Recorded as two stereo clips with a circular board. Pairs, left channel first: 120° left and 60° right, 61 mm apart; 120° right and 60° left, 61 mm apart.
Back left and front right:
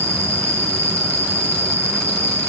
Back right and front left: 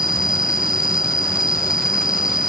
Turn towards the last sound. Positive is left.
turn(degrees=-20)